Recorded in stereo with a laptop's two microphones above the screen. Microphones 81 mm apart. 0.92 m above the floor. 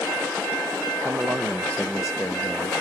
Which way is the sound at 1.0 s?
40° right (ahead or behind).